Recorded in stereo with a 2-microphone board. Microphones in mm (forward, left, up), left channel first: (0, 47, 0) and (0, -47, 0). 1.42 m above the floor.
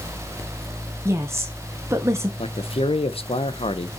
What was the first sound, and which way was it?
A woman speaking, 30° right (ahead or behind).